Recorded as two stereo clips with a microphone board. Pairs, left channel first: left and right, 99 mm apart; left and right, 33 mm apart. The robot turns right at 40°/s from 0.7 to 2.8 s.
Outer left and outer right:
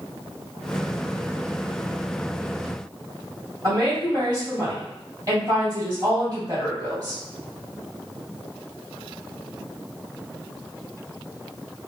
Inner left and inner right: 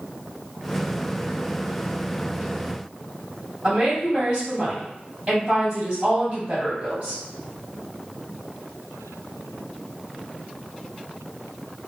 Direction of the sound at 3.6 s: 35° right (ahead or behind).